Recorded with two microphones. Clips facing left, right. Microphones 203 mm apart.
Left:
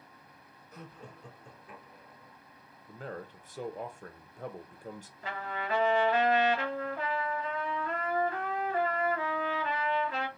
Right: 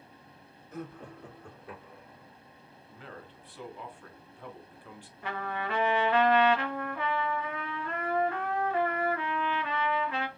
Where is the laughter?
50° right (ahead or behind), 1.2 m; by 2.3 s 80° right, 1.7 m.